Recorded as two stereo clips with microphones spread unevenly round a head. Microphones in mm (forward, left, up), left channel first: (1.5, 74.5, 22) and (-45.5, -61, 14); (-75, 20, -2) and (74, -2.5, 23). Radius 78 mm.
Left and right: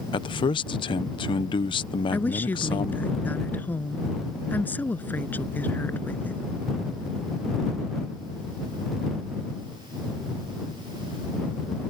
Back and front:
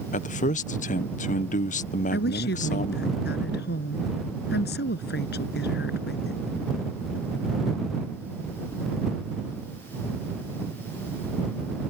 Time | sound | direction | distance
0.1 | a man speaking | 125° left | ?
2.1 | a woman speaking | 150° left | ?